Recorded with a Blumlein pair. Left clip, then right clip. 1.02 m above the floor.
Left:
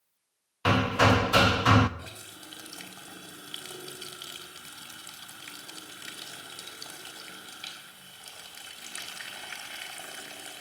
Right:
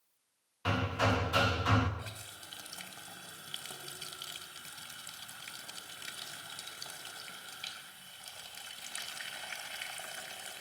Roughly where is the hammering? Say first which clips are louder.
Left 9 dB; ahead left.